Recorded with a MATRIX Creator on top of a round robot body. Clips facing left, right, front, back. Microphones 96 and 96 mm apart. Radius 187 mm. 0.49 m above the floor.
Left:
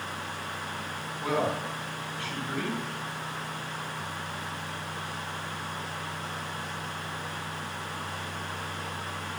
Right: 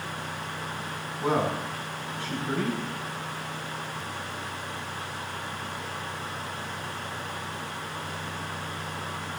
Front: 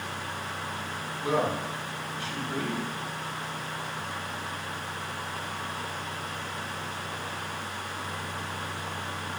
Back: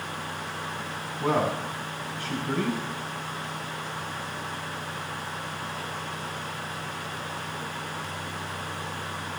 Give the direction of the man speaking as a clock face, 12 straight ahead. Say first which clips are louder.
Right 2 dB, back 2 dB; 5 o'clock.